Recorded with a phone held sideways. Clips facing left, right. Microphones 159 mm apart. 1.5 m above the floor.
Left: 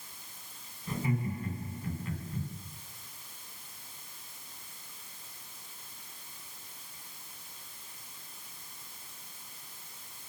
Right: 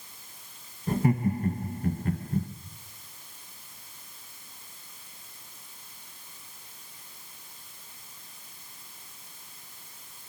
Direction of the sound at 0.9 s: 55° right (ahead or behind).